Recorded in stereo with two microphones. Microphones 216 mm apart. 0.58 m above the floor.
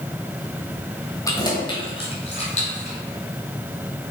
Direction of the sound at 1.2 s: 15° left (ahead or behind).